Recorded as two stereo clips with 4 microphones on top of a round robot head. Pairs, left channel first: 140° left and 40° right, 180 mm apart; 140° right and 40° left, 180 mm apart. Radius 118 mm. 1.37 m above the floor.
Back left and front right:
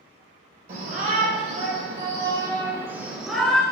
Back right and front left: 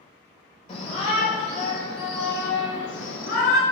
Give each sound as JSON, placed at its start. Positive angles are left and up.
{"t": 0.7, "sound": "a shout", "azimuth_deg": -85, "distance_m": 4.5}